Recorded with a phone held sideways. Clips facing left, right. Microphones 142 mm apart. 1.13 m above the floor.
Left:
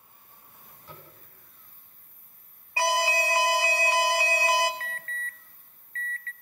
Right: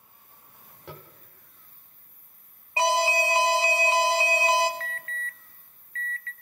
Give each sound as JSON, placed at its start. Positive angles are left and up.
{"t": 0.9, "sound": "tapping", "side_deg": -75, "distance_m": 3.5}
{"t": 2.8, "sound": "an alarm", "side_deg": -20, "distance_m": 1.4}
{"t": 4.8, "sound": "an alarm", "side_deg": 40, "distance_m": 0.5}